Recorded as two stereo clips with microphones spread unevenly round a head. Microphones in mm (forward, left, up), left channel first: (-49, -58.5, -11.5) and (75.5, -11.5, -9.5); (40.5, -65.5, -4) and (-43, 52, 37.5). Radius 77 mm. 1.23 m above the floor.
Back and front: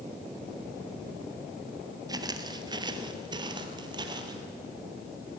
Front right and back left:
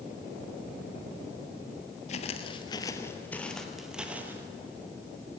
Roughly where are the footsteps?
Ahead.